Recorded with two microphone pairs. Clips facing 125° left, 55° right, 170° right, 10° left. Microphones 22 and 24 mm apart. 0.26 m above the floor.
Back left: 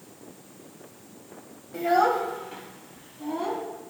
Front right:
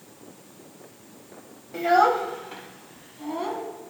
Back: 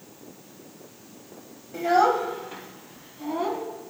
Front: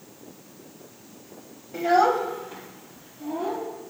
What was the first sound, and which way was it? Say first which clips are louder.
A child speaking: front right 3 dB, even; 40° right.